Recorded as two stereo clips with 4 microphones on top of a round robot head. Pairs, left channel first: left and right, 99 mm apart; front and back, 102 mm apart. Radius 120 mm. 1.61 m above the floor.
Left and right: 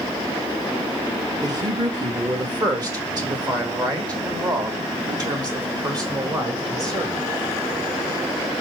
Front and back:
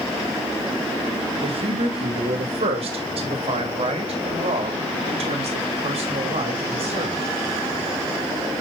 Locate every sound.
1.4 s a man speaking: 140° right, 2.5 m